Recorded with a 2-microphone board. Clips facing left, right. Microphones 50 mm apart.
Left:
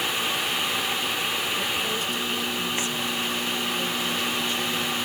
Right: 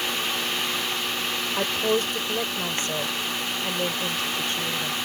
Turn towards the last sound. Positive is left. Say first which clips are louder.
# right 4 dB
turn(degrees=-50)  # may be behind; listen again after turning